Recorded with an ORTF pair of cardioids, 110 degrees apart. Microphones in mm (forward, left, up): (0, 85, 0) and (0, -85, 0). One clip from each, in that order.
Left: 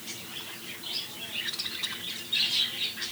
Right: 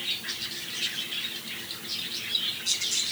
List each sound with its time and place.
Only background noise.